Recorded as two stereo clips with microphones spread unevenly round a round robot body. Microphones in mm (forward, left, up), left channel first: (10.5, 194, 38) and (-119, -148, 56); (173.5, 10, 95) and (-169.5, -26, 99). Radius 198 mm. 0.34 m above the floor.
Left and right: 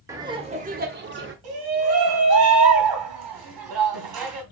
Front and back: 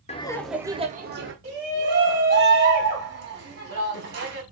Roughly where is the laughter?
Ahead right.